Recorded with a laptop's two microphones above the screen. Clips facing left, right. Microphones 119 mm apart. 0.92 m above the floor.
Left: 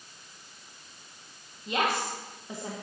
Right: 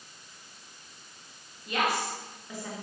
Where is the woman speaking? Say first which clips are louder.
Left 1 dB; 25° left (ahead or behind), 1.2 m.